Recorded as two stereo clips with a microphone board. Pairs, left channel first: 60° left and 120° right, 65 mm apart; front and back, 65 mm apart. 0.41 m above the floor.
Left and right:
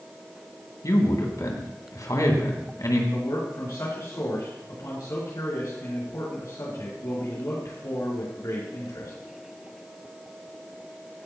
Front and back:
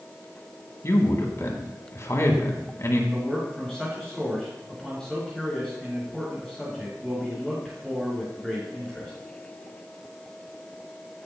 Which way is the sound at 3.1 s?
80° left.